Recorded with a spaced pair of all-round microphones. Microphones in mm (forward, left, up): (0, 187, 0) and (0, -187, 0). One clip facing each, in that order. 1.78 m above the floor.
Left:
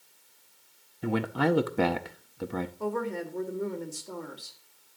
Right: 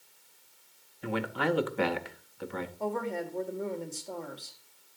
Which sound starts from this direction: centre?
A woman speaking, at 2.8 s.